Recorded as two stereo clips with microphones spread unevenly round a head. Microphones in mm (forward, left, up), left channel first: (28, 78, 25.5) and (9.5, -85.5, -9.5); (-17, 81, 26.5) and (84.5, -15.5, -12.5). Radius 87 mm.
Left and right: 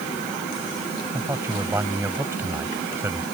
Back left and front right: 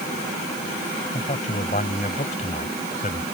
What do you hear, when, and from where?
1.1 s a man speaking: 175° right